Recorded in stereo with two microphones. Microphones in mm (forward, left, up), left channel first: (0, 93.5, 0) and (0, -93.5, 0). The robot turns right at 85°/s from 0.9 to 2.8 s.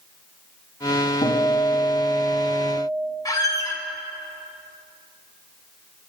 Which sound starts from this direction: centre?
A squeak, at 3.2 s.